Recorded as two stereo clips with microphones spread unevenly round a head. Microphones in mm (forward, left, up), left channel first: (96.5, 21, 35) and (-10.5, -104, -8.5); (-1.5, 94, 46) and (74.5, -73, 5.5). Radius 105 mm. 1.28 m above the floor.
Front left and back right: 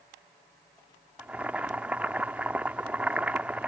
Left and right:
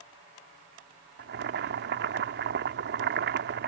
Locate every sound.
1.2 s boiling: 35° right